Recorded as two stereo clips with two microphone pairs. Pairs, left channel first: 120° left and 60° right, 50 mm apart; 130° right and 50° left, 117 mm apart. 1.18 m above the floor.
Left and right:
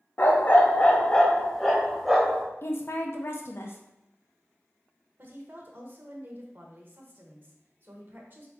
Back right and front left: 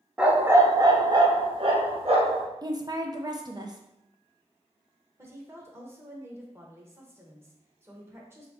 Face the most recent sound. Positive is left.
turn(degrees=-20)